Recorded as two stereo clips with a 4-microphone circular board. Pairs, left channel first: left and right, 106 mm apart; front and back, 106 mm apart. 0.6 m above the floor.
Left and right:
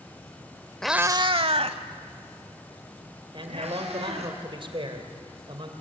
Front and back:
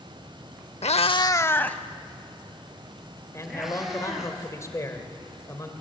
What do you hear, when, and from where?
0.8 s a cat meowing: 5° left, 0.6 m; by 4.3 s 95° right, 5.5 m
3.3 s a man speaking: 60° right, 3 m